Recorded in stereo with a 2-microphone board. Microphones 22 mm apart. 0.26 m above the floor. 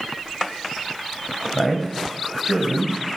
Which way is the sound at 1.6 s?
25° left (ahead or behind).